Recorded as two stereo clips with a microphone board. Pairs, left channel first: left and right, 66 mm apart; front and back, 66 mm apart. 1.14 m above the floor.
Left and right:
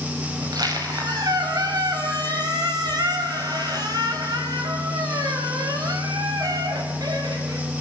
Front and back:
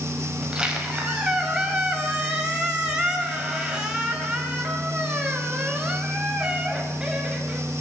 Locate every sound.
0.4 s a squeak: 105° right, 5.5 m